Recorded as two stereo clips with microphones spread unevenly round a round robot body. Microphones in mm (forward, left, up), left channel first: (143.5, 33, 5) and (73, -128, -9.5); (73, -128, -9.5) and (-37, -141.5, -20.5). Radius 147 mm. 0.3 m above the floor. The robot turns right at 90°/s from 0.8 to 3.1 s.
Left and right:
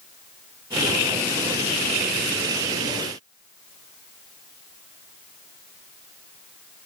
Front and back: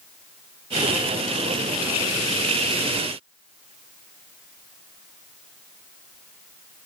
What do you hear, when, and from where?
Only background noise.